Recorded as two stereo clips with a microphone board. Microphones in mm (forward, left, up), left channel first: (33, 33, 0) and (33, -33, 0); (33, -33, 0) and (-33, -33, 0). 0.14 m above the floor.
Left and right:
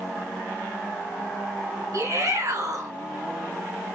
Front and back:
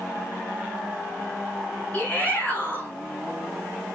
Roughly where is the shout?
Ahead right.